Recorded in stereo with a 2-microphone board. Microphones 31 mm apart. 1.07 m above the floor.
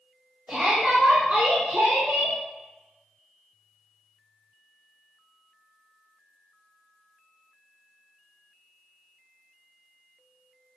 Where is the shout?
50° right (ahead or behind), 2.5 m; by 2.4 s 75° right (ahead or behind), 2 m.